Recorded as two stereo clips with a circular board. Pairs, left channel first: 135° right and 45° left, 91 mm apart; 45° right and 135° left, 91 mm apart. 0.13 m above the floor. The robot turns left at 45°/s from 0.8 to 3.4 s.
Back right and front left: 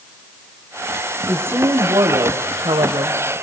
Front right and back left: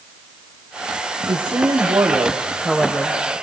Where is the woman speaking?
115° left, 4 m; by 3.3 s 25° left, 4 m.